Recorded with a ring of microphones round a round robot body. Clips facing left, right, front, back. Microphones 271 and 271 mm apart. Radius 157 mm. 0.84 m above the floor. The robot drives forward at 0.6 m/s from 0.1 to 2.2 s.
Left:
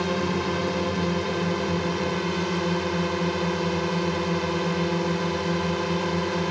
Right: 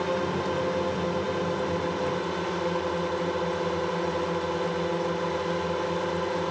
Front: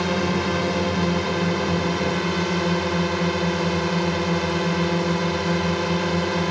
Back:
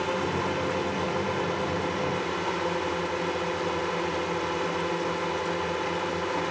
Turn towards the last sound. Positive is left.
turn(degrees=35)